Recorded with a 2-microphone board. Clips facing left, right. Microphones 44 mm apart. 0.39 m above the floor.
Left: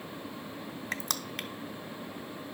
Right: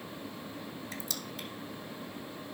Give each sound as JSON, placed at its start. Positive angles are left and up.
{"t": 0.9, "sound": "crushing", "side_deg": 65, "distance_m": 0.6}